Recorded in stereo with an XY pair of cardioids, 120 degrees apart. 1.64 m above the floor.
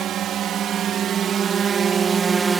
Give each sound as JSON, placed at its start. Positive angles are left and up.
{"t": 0.0, "sound": "a drone", "azimuth_deg": -65}